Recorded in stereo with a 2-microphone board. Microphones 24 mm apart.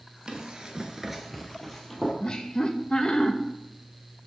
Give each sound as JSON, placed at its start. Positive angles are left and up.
{"t": 0.3, "sound": "running footsteps", "side_deg": -35, "distance_m": 1.3}
{"t": 2.2, "sound": "laughter", "side_deg": 35, "distance_m": 0.8}